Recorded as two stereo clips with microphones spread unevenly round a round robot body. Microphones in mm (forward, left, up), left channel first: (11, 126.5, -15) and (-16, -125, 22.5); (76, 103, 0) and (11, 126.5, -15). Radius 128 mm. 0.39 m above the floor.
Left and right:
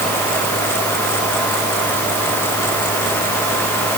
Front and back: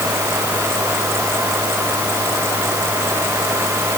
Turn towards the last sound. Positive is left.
No sound to turn to.